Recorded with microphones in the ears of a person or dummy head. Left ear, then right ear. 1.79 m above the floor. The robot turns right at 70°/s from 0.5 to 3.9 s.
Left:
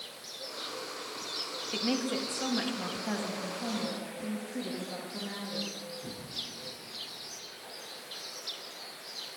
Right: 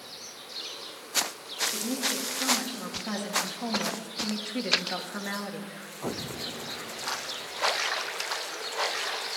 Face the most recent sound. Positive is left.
turn(degrees=-120)